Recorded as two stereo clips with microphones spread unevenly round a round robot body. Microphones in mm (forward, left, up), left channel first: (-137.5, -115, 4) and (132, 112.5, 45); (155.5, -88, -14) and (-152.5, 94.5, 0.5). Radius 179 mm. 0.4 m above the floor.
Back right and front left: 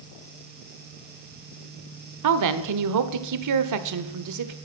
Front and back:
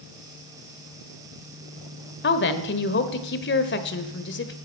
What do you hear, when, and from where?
2.2 s a woman speaking: 15° left, 1.3 m